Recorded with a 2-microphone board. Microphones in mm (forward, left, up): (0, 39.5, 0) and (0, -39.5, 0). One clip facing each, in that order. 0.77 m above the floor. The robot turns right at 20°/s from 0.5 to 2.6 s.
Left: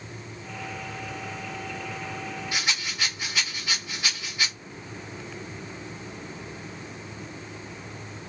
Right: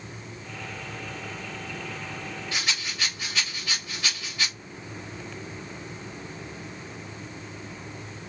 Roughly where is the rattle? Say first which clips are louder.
Even; centre.